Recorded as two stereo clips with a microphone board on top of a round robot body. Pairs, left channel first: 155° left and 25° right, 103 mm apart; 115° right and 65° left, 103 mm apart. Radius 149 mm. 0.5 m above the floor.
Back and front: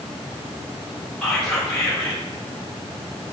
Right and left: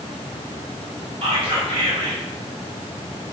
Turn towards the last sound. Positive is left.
turn(degrees=75)